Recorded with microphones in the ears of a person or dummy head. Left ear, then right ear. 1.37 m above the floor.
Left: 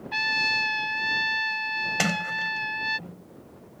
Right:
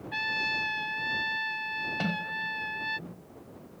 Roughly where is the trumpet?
Left.